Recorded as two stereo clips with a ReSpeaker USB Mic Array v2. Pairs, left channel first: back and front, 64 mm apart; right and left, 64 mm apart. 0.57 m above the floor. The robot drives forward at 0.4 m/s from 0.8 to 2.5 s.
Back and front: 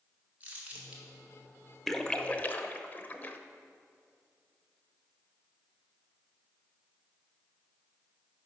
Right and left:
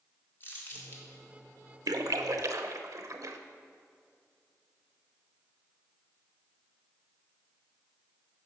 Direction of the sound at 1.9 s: 95° left.